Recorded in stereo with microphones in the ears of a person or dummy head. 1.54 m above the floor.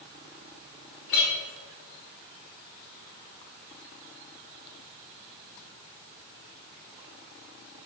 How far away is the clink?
About 0.9 m.